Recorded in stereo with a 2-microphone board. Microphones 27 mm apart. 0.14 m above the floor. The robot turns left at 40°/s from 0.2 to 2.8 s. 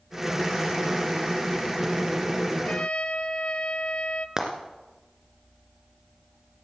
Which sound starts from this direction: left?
A trumpet, at 2.5 s.